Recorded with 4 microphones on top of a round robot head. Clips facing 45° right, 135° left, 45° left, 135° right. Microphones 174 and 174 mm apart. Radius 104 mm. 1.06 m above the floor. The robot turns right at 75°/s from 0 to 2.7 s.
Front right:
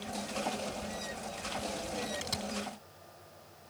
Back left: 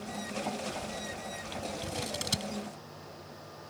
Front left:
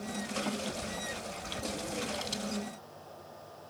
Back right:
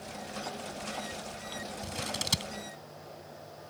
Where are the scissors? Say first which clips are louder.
Back left 1 dB, front left 2 dB; 160° left; by 2.5 s 150° right.